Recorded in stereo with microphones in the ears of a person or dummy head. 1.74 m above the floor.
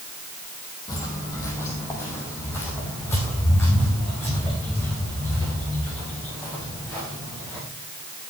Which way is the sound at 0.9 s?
15° left (ahead or behind).